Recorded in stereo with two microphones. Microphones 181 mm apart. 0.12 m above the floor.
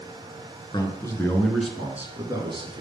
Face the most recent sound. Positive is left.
turn(degrees=-30)  # may be behind; listen again after turning